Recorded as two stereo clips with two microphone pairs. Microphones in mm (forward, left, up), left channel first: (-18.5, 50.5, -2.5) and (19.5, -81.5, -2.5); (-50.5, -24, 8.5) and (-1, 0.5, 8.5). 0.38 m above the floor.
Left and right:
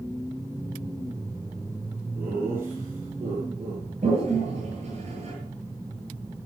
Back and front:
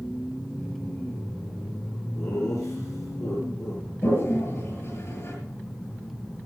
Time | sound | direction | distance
2.1 | laughter | 150° right | 8.5 m
4.0 | a toilet flushing | 115° right | 8.5 m